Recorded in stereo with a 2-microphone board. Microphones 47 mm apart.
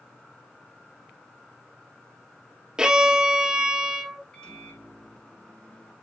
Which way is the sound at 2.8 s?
15° right (ahead or behind).